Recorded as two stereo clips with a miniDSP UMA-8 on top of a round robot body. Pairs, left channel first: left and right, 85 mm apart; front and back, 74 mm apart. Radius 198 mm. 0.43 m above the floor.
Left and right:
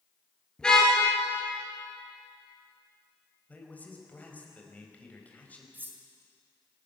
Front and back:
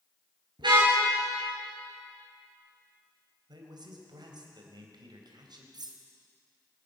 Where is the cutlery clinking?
160° right, 2 m.